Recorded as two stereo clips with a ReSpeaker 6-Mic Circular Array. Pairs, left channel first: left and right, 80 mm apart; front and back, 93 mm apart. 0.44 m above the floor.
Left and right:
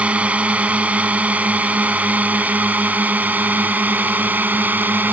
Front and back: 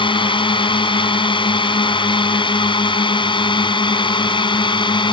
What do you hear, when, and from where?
0.0 s a drone: 15° right; by 5.1 s 25° right